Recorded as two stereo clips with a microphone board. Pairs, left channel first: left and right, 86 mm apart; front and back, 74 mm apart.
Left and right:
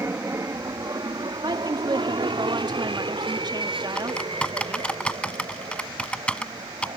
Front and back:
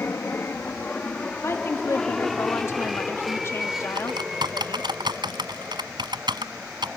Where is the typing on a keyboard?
165° left.